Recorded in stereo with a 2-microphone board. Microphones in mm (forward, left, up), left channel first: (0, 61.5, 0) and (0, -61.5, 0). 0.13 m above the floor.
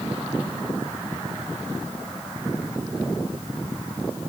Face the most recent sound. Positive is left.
No sound to turn to.